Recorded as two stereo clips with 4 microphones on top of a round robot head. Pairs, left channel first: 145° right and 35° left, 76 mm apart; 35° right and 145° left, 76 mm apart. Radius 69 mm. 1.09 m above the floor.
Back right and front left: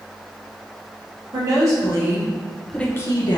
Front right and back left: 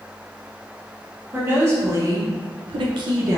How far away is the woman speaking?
About 1.4 m.